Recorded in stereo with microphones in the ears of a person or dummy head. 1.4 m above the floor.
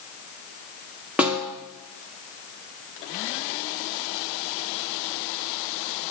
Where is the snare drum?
5° right (ahead or behind), 0.8 m.